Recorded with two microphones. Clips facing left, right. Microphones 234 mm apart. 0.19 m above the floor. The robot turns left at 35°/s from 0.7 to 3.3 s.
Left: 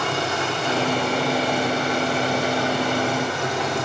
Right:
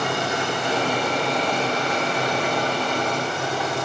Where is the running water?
165° right, 4.5 m; by 3.9 s 105° left, 4.5 m.